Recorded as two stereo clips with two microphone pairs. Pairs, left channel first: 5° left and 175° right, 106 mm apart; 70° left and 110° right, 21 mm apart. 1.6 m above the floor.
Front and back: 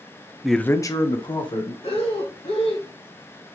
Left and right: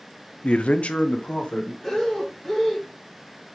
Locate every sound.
0.4 s a man speaking: 100° left, 0.5 m; by 1.7 s 40° left, 1.9 m
1.8 s breathing: 5° right, 4.5 m